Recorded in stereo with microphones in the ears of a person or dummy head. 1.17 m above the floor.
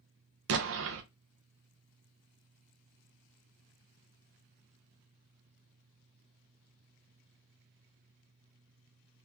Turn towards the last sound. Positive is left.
turn(degrees=-65)  # may be behind; listen again after turning